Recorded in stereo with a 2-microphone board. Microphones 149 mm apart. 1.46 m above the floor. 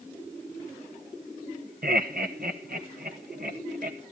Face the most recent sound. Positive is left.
turn(degrees=-75)  # may be behind; listen again after turning